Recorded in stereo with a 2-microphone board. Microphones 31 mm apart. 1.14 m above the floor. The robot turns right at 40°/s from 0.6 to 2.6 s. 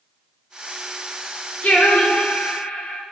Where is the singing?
60° left, 1.7 m; by 3.0 s 100° left, 1.7 m.